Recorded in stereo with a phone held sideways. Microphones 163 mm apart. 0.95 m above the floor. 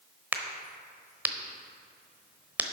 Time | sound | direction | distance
0.3 | a crack | 10° right (ahead or behind) | 1.0 m